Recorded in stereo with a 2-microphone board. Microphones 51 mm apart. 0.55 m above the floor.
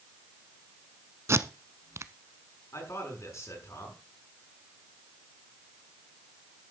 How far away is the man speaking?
About 7 m.